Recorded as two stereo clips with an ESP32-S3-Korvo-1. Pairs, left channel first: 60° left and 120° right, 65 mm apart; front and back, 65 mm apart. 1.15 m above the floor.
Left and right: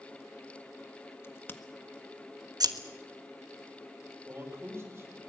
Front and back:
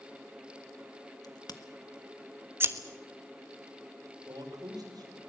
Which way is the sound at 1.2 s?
5° left.